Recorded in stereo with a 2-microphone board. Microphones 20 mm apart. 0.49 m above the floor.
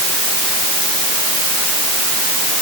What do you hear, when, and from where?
Only background noise.